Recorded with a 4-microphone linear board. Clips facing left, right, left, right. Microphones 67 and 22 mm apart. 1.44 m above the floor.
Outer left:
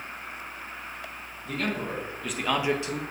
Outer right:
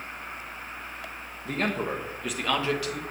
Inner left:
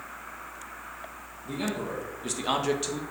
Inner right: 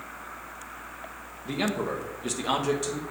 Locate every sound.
1.4 s a man speaking: 35° right (ahead or behind), 1.4 m; by 3.0 s 30° left (ahead or behind), 1.4 m